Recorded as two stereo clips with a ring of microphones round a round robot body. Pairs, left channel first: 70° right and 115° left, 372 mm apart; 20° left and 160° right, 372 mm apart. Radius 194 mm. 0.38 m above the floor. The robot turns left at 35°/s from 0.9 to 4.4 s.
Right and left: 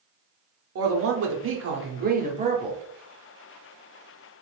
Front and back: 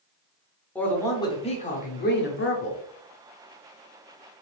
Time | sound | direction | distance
0.8 | a man speaking | 105° left | 0.9 m